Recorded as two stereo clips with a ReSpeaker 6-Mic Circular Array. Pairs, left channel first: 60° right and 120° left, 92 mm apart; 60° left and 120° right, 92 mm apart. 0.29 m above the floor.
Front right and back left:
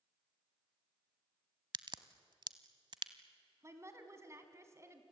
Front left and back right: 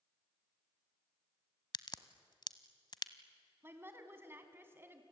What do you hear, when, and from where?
1.7 s a crack: 90° left, 0.9 m
3.6 s a woman speaking: 175° left, 2.5 m